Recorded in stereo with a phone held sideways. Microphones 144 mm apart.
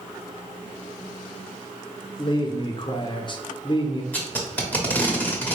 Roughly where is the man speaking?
Left.